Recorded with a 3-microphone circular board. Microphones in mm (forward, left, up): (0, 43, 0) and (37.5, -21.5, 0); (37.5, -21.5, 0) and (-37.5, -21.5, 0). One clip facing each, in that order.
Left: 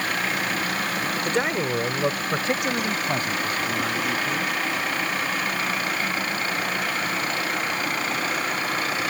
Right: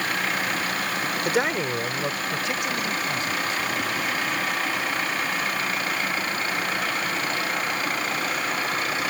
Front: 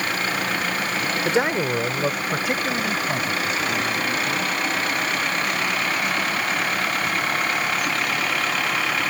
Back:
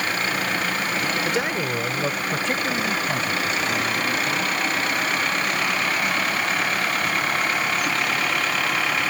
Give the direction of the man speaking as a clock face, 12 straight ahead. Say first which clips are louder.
Right 1 dB, front 3 dB; 12 o'clock.